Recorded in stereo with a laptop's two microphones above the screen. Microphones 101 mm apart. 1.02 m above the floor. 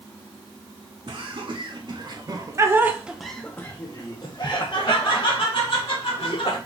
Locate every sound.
1.1 s laughter: 60° right (ahead or behind), 1.3 m; by 6.6 s 70° left (ahead or behind), 1.9 m